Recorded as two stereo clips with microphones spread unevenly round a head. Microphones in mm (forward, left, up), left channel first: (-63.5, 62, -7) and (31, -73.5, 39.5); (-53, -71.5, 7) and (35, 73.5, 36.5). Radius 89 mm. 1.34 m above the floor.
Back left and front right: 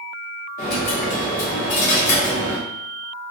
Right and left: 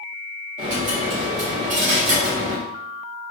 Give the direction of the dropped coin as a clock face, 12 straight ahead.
9 o'clock.